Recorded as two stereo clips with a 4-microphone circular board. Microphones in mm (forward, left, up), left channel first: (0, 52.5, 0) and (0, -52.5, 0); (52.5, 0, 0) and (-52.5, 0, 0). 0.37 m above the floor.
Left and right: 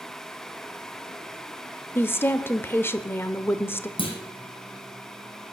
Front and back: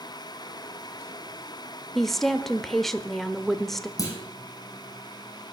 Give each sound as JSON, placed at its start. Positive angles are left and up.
{"t": 1.9, "sound": "a woman speaking", "azimuth_deg": 80, "distance_m": 0.9}
{"t": 4.0, "sound": "a clunk", "azimuth_deg": 55, "distance_m": 5.0}